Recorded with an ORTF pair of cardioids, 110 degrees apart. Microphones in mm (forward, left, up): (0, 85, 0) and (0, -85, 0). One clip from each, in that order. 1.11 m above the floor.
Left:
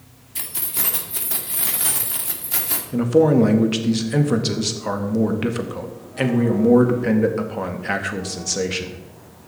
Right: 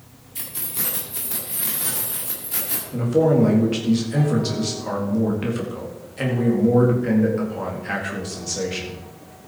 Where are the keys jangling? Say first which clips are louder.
Left 3 dB; 30° left, 2.0 m.